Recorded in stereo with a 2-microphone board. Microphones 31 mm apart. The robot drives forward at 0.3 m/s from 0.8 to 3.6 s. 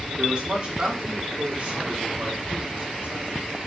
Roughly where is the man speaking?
Right.